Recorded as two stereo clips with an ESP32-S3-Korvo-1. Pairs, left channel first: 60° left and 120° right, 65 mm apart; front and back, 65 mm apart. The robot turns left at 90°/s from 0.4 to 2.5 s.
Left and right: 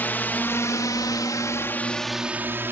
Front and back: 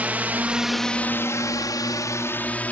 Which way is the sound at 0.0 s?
120° left.